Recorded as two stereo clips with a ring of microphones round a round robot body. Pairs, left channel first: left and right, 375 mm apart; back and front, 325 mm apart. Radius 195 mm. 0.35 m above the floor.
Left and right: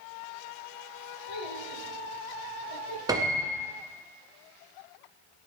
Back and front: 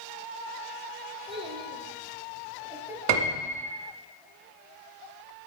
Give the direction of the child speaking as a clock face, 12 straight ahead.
10 o'clock.